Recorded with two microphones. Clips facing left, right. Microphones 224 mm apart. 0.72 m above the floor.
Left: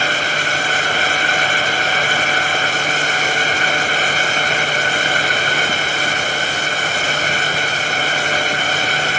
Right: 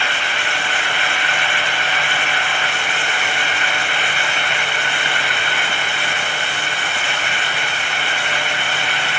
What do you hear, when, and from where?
Only background noise.